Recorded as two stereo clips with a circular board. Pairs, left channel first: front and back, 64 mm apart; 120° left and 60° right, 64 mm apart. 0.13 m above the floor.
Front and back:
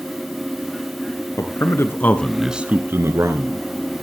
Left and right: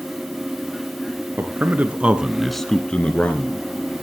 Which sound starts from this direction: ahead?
A man speaking, at 1.4 s.